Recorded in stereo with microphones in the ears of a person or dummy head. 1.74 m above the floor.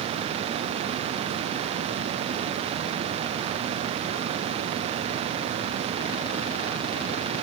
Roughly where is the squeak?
No squeak in this recording.